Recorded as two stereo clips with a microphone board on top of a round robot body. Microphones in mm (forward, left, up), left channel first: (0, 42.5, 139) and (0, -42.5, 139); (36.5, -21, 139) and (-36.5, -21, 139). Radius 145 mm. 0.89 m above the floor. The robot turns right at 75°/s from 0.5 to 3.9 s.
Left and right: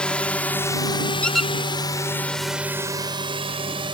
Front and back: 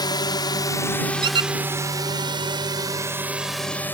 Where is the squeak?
165° left; by 1.5 s 170° right.